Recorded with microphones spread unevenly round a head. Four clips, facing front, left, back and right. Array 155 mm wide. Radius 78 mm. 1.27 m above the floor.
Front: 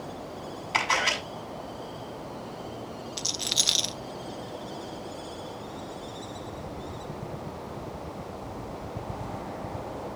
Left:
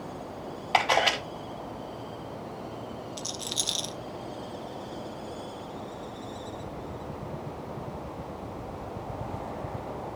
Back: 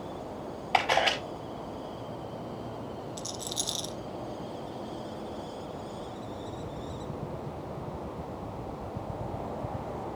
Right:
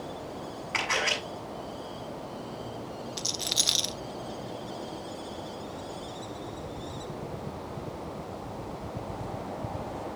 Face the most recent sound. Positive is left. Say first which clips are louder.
# right 1 dB, front 1 dB
turn(degrees=-35)